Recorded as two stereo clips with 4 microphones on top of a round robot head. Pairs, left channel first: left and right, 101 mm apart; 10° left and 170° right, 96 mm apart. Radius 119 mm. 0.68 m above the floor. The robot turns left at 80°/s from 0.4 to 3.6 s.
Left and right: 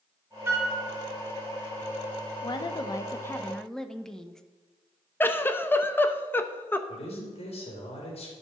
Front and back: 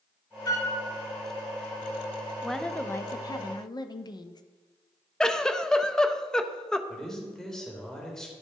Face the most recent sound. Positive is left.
turn(degrees=95)